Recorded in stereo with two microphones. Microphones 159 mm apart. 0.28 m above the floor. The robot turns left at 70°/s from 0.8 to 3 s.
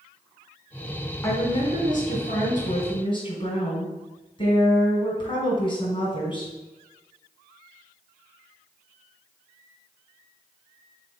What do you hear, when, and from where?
1.2 s a woman speaking: 160° left, 2.5 m; by 6.5 s 40° left, 2.5 m